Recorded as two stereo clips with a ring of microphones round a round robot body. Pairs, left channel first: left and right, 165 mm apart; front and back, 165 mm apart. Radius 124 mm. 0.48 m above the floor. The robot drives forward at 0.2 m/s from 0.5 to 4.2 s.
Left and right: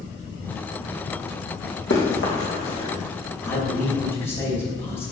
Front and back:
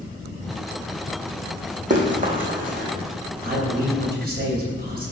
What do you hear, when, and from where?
1.9 s running footsteps: 135° left, 2.0 m; by 2.9 s 145° left, 2.5 m
3.4 s a man speaking: 155° left, 3 m